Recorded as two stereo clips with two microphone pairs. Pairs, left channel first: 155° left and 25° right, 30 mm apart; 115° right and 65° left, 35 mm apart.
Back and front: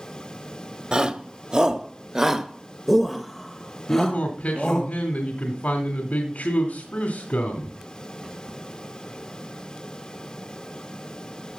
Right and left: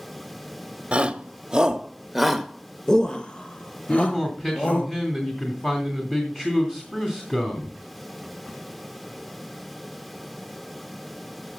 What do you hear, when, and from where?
0.9 s a shout: 25° left, 1.1 m; by 4.9 s 130° right, 1.5 m
3.9 s a man speaking: straight behind, 2.5 m